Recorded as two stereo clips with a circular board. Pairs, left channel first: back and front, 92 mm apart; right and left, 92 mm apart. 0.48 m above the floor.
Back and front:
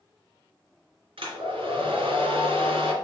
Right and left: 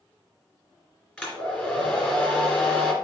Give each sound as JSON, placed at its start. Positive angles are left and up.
{"t": 1.2, "sound": "a hair dryer", "azimuth_deg": -15, "distance_m": 3.0}